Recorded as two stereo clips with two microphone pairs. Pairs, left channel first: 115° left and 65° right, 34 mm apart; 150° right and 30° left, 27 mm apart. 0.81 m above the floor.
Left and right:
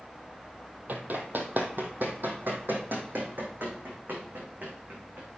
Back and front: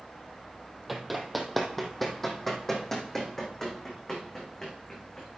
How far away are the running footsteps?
About 1.7 m.